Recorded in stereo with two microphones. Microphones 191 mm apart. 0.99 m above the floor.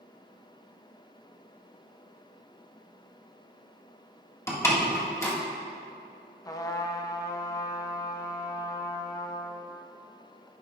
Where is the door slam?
15° left (ahead or behind), 1.5 m.